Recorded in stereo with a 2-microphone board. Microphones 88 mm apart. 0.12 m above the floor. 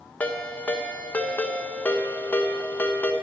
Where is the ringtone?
20° left (ahead or behind), 0.9 m.